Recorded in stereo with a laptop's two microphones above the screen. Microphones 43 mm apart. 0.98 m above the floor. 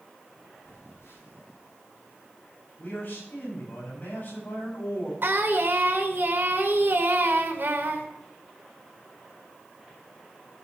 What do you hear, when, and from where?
0.6 s a phone buzzing: 85° left, 7 m
2.8 s a man speaking: 55° left (ahead or behind), 7 m
5.2 s singing: 65° right (ahead or behind), 2.5 m